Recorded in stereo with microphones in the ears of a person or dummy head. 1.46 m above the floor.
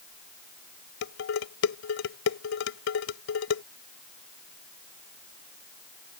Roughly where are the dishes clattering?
Left.